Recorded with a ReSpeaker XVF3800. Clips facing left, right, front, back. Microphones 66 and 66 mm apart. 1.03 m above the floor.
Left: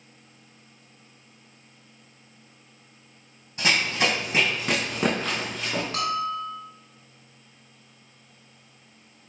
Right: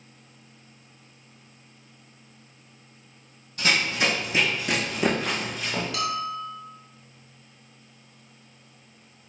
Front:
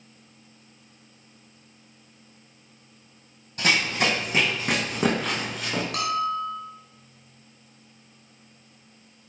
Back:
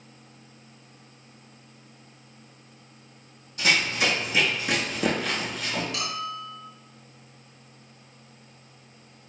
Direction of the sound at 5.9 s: 30° left.